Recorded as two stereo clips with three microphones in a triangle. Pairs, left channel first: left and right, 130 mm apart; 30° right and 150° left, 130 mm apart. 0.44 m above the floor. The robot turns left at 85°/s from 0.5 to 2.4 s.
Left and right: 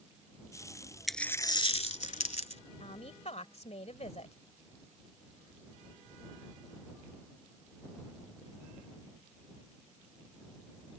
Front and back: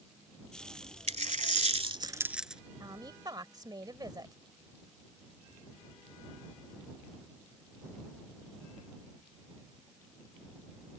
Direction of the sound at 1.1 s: Straight behind.